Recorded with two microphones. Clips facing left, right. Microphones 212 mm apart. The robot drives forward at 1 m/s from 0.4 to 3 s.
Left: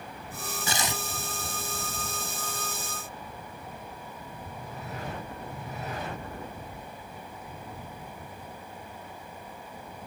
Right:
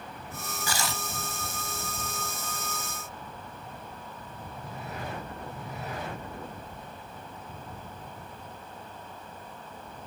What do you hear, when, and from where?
0.7 s tearing paper: 25° left (ahead or behind); by 1.0 s 20° left (ahead or behind)